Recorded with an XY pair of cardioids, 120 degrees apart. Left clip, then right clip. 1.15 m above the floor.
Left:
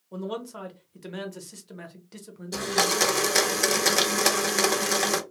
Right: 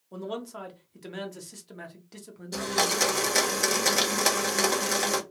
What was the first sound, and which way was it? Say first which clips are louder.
A man speaking: left 2 dB; straight ahead.